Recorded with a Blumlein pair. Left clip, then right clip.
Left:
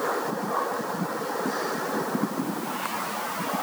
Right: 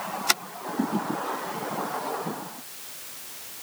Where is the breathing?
No breathing in this recording.